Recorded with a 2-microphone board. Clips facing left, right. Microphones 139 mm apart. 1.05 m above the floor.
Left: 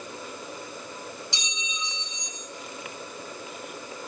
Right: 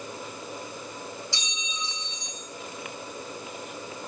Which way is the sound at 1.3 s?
20° left (ahead or behind).